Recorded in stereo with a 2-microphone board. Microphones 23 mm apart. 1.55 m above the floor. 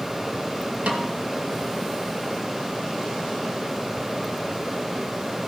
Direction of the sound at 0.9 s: 70° right (ahead or behind).